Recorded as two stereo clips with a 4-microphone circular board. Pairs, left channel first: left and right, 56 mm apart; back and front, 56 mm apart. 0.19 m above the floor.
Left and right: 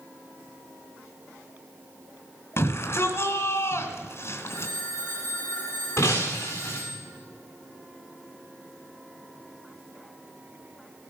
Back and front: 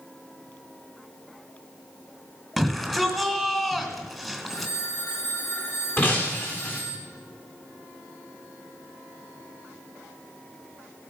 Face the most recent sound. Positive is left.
turn(degrees=130)